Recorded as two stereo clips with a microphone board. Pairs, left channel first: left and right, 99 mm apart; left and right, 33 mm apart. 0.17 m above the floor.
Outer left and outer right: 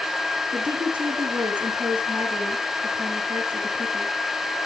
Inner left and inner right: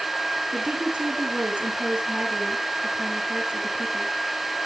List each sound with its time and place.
0.5 s a woman speaking: 45° right (ahead or behind), 3.5 m